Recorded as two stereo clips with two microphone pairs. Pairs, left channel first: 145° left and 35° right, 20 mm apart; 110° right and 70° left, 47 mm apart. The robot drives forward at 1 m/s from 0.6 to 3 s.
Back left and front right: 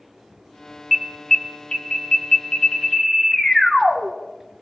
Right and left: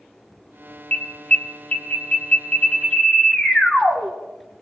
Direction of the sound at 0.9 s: 105° right.